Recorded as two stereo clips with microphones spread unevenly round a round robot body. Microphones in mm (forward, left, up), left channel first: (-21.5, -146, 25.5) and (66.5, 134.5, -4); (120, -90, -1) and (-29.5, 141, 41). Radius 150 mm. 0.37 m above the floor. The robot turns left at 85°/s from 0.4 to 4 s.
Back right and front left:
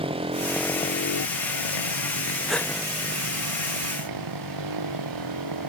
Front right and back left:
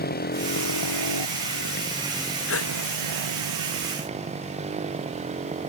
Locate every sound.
0.0 s a motorcycle: straight ahead; by 5.7 s 55° left
2.5 s a gasp: 15° right; by 2.7 s 35° right